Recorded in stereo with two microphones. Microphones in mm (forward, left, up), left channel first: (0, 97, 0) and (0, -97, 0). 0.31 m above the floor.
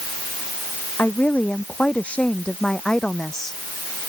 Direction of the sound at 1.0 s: 10° left (ahead or behind).